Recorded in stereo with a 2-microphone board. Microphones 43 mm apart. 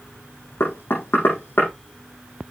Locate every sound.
0.6 s knocking: 70° left (ahead or behind), 5.5 m